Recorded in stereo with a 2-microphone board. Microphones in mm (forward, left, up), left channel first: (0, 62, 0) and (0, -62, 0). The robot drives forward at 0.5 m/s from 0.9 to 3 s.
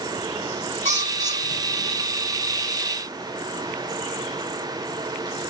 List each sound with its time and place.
0.8 s a bird: 75° right (ahead or behind), 1.9 m; by 2.1 s 60° right (ahead or behind), 2 m